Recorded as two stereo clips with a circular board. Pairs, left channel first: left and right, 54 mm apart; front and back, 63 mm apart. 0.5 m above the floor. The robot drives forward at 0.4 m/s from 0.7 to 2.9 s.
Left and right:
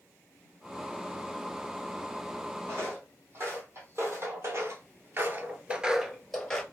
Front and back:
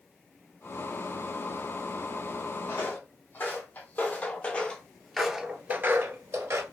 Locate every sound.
2.7 s footsteps: 50° right, 1.9 m; by 6.6 s 165° left, 0.8 m